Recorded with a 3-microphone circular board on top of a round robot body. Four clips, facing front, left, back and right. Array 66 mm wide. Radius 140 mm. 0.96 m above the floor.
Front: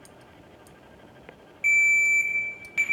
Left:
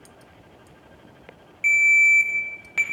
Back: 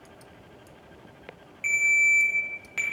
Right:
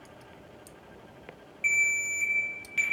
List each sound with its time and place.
1.6 s a ringtone: 105° left, 0.9 m